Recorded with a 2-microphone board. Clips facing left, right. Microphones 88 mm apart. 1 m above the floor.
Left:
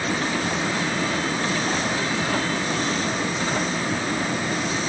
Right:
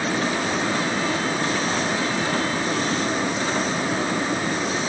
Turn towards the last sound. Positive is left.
No sound to turn to.